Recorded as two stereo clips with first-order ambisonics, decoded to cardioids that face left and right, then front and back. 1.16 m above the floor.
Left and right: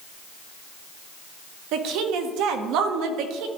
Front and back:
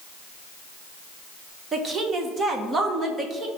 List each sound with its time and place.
1.7 s a woman speaking: 115° right, 1.0 m